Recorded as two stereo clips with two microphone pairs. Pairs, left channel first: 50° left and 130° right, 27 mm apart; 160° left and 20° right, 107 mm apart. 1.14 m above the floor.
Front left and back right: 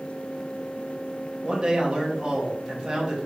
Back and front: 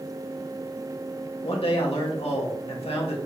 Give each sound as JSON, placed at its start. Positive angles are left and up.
{"t": 1.4, "sound": "a man speaking", "azimuth_deg": 175, "distance_m": 2.0}